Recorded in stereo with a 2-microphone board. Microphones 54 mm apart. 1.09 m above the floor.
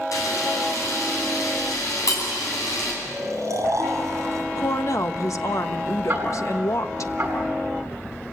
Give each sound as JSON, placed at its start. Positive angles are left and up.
{"t": 0.1, "sound": "a camera shutter", "side_deg": 75, "distance_m": 10.0}
{"t": 3.0, "sound": "snoring", "side_deg": -65, "distance_m": 6.5}
{"t": 4.6, "sound": "a woman speaking", "side_deg": 70, "distance_m": 1.2}
{"t": 6.1, "sound": "ticking", "side_deg": -30, "distance_m": 8.5}